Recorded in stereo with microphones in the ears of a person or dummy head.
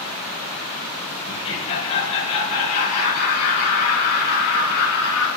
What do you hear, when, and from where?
1.3 s laughter: 25° left (ahead or behind), 4.5 m; by 5.3 s 65° left (ahead or behind), 4 m